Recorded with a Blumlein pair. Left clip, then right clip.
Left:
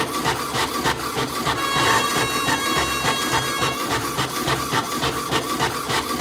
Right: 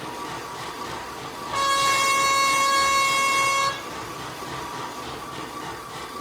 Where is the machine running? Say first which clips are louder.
Left 10 dB; 40° left, 0.8 m.